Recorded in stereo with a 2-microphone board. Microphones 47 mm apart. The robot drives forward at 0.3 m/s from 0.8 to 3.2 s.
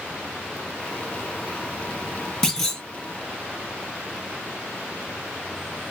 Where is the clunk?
10° left (ahead or behind), 0.7 m.